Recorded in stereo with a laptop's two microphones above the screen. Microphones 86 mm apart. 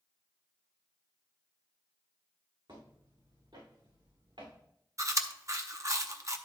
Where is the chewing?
40° right (ahead or behind), 0.6 m.